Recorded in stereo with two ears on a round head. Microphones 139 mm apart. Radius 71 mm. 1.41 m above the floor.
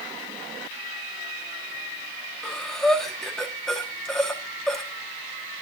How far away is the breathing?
About 1.6 m.